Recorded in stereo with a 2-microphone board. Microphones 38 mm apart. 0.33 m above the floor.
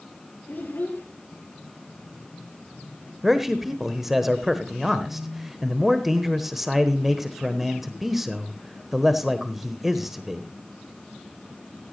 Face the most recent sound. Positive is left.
turn(degrees=-5)  # may be behind; listen again after turning